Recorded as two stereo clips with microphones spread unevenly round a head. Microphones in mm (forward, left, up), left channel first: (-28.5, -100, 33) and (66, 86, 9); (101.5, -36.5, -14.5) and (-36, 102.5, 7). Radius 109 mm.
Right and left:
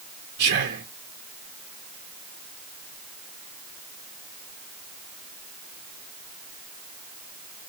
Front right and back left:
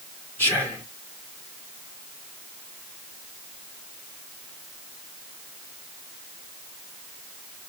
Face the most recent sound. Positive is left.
turn(degrees=35)